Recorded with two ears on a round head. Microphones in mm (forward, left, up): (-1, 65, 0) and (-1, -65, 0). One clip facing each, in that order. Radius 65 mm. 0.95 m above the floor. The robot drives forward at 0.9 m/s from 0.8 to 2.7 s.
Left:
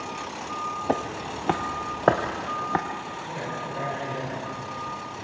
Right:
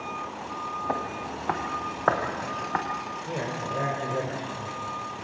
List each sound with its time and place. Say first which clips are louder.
0.9 s footsteps: left 5 dB; 35° left (ahead or behind), 1.2 m; by 2.8 s 30° left (ahead or behind), 2 m
3.3 s a man speaking: right 3 dB; 40° right (ahead or behind), 4 m